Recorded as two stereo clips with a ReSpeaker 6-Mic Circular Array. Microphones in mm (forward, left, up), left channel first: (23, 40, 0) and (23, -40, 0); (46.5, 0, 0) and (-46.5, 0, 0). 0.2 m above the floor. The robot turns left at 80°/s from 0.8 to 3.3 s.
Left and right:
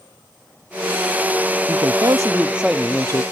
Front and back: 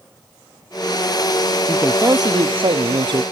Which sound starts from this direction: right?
A man speaking, at 1.7 s.